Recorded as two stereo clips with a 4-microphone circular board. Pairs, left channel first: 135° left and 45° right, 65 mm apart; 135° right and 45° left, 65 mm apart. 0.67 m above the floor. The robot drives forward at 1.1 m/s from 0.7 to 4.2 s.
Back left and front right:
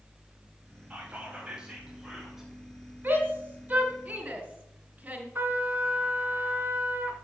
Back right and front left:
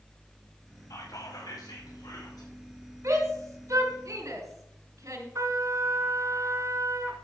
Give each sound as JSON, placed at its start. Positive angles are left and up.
{"t": 0.9, "sound": "whispering", "azimuth_deg": -115, "distance_m": 5.0}
{"t": 3.0, "sound": "a shout", "azimuth_deg": 15, "distance_m": 4.0}
{"t": 5.3, "sound": "a trumpet", "azimuth_deg": 15, "distance_m": 1.7}